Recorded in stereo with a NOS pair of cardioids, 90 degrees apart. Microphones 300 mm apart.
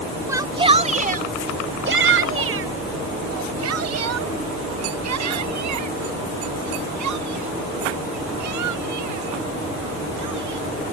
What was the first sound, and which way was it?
A shout, 10° right.